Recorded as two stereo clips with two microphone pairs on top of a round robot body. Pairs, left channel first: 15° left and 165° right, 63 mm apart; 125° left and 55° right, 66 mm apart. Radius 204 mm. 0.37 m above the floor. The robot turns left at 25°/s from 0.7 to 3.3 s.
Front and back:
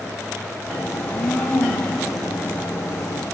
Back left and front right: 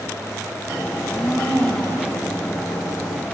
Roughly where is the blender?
Left.